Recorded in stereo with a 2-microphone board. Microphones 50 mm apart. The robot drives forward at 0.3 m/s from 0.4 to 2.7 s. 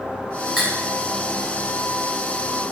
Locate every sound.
0.6 s cutlery clinking: centre (ahead or behind), 1.7 m